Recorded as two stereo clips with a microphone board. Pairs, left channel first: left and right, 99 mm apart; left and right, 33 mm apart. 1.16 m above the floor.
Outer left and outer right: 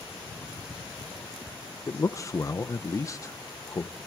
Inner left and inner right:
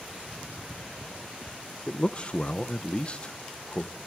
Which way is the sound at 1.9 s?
35° left (ahead or behind).